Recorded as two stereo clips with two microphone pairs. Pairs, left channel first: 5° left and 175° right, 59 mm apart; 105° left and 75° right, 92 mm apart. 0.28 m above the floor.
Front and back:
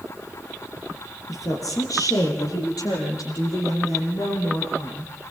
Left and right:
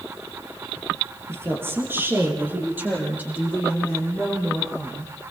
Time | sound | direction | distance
1.3 | a woman speaking | 10° right | 6.5 m